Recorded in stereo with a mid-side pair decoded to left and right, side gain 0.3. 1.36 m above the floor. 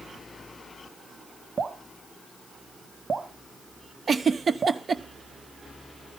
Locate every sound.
1.6 s dripping: 45° right, 1.2 m
4.1 s a giggle: 55° right, 0.9 m